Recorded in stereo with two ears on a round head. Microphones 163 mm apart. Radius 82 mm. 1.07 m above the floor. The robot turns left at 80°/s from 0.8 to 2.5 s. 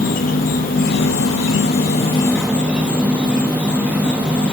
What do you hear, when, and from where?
0.0 s an insect: 130° left, 0.9 m; by 4.5 s 5° right, 0.9 m